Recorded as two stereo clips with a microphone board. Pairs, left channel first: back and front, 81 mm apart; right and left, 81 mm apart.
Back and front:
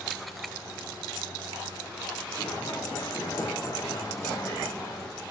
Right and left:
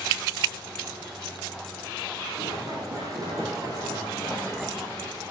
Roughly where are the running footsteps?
Behind left.